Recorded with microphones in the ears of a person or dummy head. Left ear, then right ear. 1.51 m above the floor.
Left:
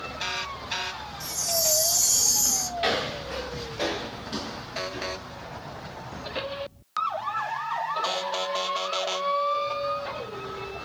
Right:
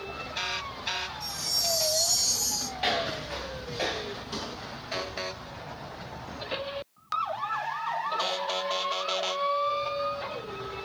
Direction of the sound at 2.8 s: 5° left (ahead or behind).